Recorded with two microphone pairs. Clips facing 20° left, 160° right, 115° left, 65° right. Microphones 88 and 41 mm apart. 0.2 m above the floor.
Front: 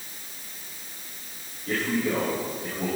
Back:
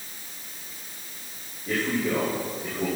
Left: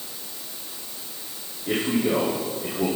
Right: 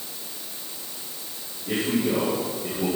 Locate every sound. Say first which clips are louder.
1.7 s a man speaking: even, left 1 dB; 125° left, 8 m